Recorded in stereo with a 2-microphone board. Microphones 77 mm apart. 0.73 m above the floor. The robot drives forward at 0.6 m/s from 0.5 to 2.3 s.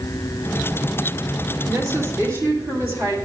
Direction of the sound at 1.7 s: 45° right (ahead or behind).